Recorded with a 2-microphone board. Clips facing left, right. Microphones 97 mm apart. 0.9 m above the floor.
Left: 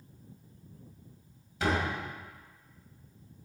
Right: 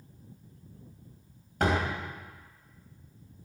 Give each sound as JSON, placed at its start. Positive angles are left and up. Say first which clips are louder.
{"t": 1.6, "sound": "a door slam", "louder": "right 2 dB", "side_deg": -55, "distance_m": 3.5}